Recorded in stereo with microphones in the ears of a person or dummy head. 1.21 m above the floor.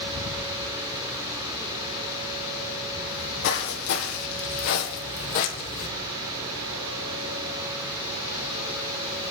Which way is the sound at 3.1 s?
70° left (ahead or behind).